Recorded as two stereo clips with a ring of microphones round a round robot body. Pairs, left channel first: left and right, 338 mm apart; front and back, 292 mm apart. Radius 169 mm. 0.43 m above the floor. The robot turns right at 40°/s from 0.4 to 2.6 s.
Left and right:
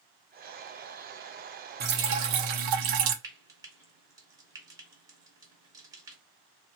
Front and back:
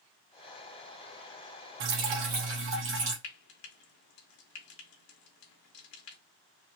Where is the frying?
10° right, 1.1 m.